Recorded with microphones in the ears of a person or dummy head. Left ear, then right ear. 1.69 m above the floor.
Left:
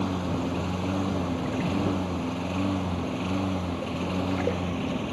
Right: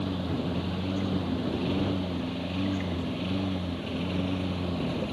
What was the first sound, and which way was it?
A lawn mower, 35° left (ahead or behind).